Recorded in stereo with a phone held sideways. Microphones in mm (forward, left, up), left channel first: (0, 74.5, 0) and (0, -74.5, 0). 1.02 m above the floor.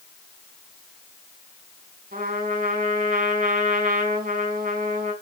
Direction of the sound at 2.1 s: 75° right (ahead or behind).